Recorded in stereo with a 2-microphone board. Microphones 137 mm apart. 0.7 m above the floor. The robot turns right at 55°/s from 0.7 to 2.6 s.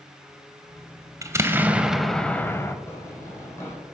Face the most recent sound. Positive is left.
turn(degrees=20)  # may be behind; listen again after turning